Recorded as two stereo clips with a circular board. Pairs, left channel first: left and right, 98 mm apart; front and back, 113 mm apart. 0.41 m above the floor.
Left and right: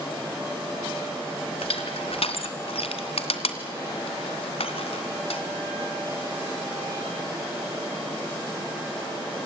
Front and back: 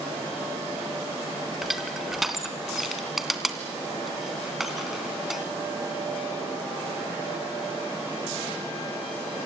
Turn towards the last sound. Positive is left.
turn(degrees=90)